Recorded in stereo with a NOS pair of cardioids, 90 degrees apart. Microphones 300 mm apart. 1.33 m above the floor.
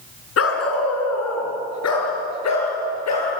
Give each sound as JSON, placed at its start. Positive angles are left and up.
{"t": 0.4, "sound": "a dog barking", "azimuth_deg": 50, "distance_m": 4.5}